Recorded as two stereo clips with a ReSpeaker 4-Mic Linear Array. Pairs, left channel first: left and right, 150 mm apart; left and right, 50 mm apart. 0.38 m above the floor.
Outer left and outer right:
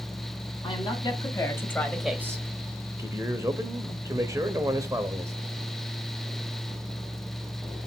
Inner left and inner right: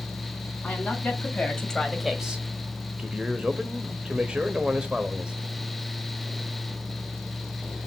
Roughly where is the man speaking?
Centre.